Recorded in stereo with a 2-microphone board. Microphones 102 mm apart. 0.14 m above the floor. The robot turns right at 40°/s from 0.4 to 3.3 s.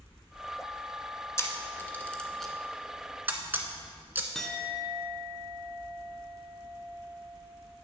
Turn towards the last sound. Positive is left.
turn(degrees=5)  # may be behind; listen again after turning